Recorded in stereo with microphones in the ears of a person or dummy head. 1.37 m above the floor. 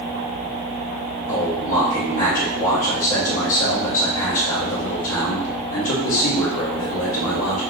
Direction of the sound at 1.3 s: 80° left.